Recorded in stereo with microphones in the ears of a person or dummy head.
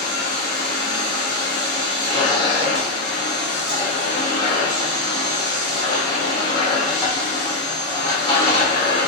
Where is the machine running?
20° left (ahead or behind), 0.9 m.